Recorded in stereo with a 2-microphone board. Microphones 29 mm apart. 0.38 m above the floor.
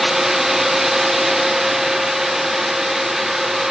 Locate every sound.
Only background noise.